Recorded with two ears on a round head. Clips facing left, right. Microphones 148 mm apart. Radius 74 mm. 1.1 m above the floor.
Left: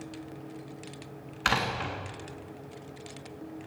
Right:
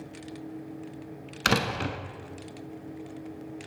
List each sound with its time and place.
1.4 s a door slam: 50° right (ahead or behind), 1.2 m